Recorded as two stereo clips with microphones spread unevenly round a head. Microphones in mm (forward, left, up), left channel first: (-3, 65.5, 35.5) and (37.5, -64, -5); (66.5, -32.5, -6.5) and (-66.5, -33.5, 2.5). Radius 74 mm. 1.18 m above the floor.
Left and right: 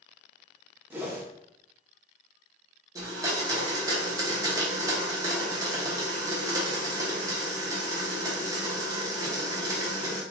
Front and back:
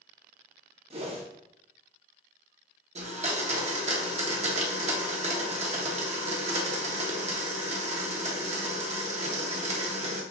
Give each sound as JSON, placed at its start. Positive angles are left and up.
{"t": 0.9, "sound": "a whoosh", "azimuth_deg": -140, "distance_m": 0.8}
{"t": 3.0, "sound": "a blender", "azimuth_deg": -145, "distance_m": 0.8}